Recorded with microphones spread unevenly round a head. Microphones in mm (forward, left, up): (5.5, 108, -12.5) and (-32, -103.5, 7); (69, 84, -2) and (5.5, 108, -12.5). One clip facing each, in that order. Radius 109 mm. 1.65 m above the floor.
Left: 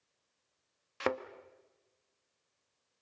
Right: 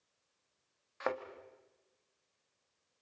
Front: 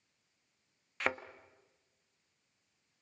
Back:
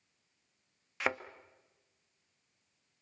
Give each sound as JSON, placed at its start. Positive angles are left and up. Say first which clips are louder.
{"t": 1.0, "sound": "a thud", "louder": "left 3 dB, back 1 dB", "azimuth_deg": 65, "distance_m": 1.2}